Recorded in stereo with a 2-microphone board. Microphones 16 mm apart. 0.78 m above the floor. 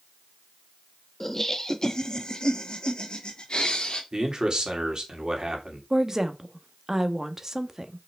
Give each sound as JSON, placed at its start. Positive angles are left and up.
{"t": 1.2, "sound": "laughter", "side_deg": 15, "distance_m": 1.1}
{"t": 4.1, "sound": "a man speaking", "side_deg": -50, "distance_m": 2.5}
{"t": 5.9, "sound": "a woman speaking", "side_deg": -30, "distance_m": 1.1}